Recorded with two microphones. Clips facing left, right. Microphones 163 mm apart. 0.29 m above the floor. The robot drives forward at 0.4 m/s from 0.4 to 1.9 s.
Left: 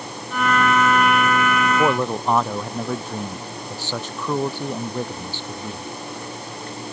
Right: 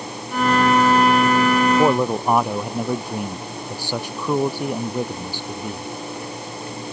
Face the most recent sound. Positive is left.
turn(degrees=-10)  # may be behind; listen again after turning